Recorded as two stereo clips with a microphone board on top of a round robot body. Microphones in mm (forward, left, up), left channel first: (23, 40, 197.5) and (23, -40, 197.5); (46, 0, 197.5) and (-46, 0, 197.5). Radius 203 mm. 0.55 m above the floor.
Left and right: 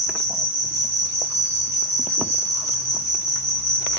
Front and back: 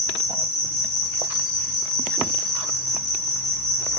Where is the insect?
85° left, 1.4 m.